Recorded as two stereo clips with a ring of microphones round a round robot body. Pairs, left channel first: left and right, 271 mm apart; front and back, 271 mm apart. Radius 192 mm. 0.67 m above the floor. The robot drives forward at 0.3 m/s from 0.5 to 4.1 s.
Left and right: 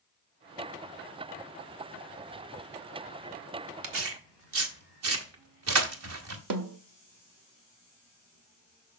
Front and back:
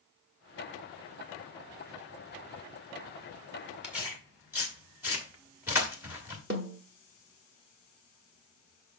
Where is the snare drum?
115° right, 0.6 m.